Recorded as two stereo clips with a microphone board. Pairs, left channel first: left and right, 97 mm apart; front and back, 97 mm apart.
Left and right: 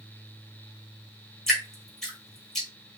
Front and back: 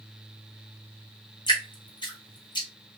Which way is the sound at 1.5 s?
5° left.